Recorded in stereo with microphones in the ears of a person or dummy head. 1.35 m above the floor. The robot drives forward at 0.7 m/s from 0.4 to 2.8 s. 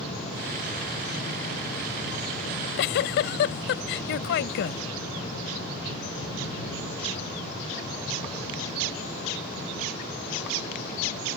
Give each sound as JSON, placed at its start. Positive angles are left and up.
{"t": 2.5, "sound": "a giggle", "side_deg": 55}